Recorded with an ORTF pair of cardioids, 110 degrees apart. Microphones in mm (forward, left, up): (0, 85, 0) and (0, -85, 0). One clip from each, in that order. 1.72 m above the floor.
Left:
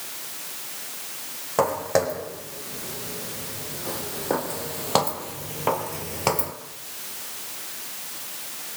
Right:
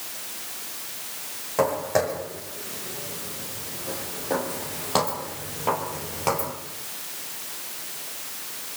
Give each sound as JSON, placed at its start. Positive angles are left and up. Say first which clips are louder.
{"t": 1.6, "sound": "footsteps", "louder": "left 1 dB", "azimuth_deg": 30, "distance_m": 6.5}